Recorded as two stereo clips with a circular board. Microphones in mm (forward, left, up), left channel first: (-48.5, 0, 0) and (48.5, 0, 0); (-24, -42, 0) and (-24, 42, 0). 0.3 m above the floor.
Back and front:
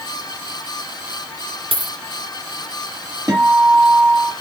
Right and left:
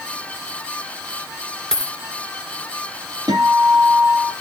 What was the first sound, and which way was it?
A dropped coin, 5° right.